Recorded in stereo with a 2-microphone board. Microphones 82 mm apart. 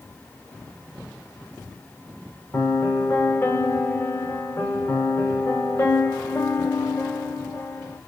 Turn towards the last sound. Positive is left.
turn(degrees=30)  # may be behind; listen again after turning